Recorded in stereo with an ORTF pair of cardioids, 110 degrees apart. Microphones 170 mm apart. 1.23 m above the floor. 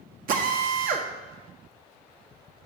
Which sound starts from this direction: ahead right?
A drill, at 0.3 s.